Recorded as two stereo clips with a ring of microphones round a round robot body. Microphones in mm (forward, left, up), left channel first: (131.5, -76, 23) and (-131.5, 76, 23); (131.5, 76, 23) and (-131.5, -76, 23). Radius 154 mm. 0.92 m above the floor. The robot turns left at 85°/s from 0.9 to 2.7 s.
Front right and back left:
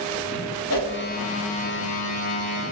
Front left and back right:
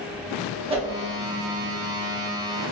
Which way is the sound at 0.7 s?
75° right.